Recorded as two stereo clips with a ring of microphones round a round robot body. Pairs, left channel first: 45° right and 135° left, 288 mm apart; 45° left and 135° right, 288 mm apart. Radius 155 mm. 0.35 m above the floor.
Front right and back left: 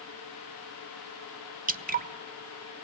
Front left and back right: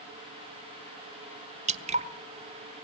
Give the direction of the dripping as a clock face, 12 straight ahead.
6 o'clock.